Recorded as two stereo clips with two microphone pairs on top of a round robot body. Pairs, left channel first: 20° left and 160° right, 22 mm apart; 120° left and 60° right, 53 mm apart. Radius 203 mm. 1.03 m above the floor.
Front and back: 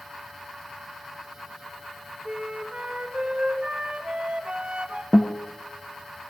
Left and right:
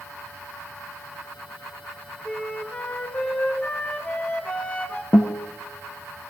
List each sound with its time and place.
2.2 s a flute: straight behind, 1.9 m
5.1 s a guitar: 65° left, 0.5 m